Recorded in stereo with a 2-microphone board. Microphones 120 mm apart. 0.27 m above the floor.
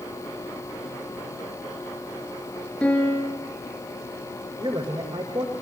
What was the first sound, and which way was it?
A piano, 10° left (ahead or behind).